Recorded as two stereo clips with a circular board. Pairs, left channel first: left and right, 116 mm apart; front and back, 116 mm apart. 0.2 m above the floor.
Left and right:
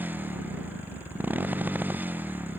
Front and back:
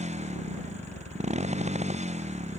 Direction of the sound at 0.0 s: 165° right.